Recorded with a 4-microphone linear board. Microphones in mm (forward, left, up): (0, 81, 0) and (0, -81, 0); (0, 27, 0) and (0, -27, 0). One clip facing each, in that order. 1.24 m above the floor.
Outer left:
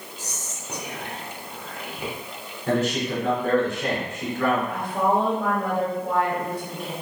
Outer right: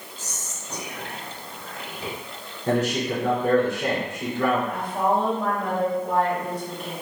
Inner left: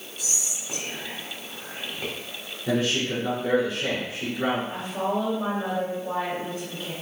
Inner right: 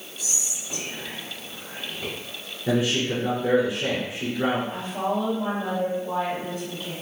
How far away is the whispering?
About 1.4 m.